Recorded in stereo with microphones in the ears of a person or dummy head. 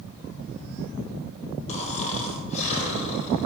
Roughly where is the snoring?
Left.